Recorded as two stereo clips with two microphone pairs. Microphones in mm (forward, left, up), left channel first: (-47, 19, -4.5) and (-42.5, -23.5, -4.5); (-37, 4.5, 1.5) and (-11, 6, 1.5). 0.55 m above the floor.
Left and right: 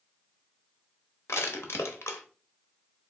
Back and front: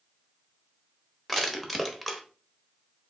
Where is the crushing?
95° left, 0.8 m.